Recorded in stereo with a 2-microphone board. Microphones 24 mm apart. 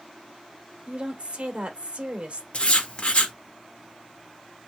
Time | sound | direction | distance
0.9 | a woman speaking | 50° right (ahead or behind) | 1.6 m
2.5 | writing | 50° left (ahead or behind) | 1.2 m